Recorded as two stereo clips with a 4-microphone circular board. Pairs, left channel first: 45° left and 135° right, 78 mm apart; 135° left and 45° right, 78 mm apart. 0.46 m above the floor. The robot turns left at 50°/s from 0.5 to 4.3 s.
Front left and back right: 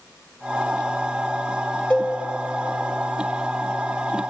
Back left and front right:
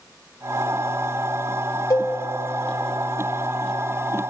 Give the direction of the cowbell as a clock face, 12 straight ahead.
8 o'clock.